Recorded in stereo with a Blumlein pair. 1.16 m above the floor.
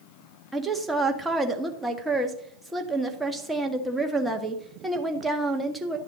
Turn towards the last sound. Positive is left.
turn(degrees=-5)